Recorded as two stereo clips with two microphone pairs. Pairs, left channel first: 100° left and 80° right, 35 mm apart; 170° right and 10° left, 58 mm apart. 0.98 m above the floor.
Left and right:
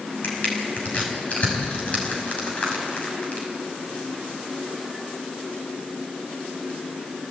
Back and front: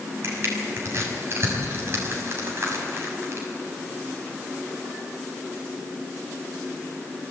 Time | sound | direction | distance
0.2 | crushing | 55° left | 6 m